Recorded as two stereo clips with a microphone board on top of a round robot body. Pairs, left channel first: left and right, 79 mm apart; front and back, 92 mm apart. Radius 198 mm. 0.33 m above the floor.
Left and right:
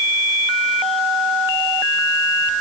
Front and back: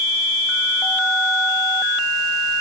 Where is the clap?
No clap in this recording.